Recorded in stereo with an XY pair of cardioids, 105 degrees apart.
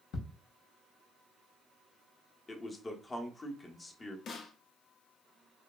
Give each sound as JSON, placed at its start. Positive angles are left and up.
{"t": 0.1, "sound": "ticking", "azimuth_deg": 65, "distance_m": 0.8}
{"t": 2.5, "sound": "a man speaking", "azimuth_deg": 30, "distance_m": 0.7}
{"t": 4.3, "sound": "a snare drum", "azimuth_deg": 65, "distance_m": 0.6}